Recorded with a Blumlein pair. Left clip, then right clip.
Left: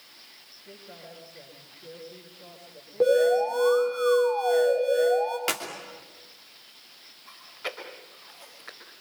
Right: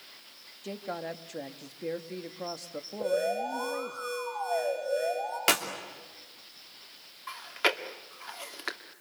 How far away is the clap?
About 3 m.